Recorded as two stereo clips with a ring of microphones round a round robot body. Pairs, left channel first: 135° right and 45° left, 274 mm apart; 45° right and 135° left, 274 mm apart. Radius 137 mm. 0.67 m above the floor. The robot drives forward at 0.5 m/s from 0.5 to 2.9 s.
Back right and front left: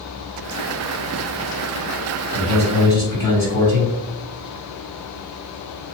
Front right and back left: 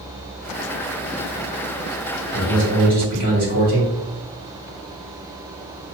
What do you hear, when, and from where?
2.3 s a man speaking: 140° left, 1.9 m; by 3.9 s 145° left, 2 m